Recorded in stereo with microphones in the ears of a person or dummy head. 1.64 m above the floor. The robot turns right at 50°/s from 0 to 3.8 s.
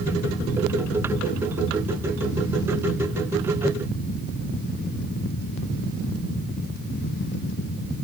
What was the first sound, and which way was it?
Only background noise.